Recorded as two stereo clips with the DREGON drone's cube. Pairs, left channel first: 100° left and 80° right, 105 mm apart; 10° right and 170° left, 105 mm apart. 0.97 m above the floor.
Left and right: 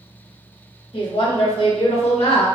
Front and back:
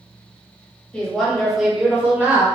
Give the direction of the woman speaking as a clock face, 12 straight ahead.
10 o'clock.